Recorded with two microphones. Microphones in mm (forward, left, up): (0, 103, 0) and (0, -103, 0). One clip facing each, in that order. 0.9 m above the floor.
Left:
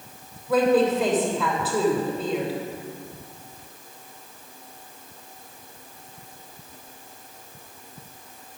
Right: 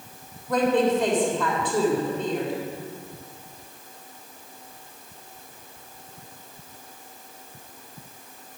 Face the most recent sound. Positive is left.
turn(degrees=5)  # may be behind; listen again after turning